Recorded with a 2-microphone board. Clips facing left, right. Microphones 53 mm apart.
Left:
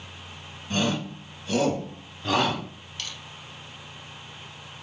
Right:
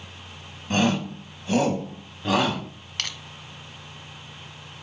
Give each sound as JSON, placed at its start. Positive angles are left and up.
{"t": 0.7, "sound": "a shout", "side_deg": -45, "distance_m": 1.9}
{"t": 3.0, "sound": "crushing", "side_deg": -75, "distance_m": 0.6}